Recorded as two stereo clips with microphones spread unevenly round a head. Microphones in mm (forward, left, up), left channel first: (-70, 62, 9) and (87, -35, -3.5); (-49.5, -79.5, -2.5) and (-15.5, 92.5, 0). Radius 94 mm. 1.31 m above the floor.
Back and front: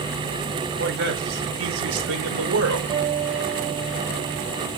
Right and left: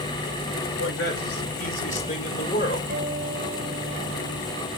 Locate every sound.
0.8 s a man speaking: 65° right, 4.5 m; by 2.8 s 35° right, 5 m
2.9 s a guitar: 35° left, 5.5 m